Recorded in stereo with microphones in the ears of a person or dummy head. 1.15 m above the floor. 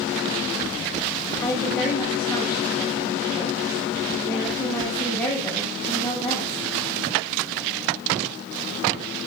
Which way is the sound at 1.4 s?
5° left (ahead or behind).